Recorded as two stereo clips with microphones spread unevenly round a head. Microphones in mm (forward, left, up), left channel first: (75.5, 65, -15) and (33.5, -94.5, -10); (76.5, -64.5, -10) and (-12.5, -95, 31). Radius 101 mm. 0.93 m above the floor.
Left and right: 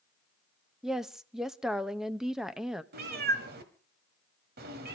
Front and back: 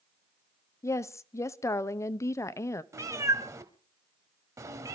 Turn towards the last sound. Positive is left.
turn(degrees=-125)